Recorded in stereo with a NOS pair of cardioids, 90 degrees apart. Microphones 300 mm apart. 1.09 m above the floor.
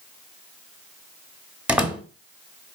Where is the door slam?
5° right, 1.5 m.